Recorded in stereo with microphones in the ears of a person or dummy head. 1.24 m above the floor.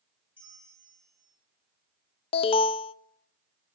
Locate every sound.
0.4 s a bell: 10° right (ahead or behind), 1.4 m
2.3 s an alarm: 30° left (ahead or behind), 0.5 m